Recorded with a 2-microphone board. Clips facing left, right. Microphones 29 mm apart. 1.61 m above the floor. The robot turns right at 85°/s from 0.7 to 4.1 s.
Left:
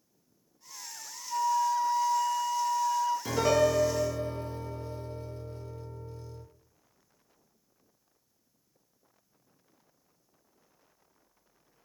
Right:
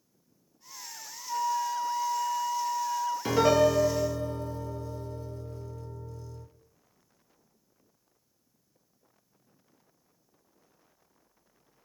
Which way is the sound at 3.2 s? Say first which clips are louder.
Right 4 dB; 30° right.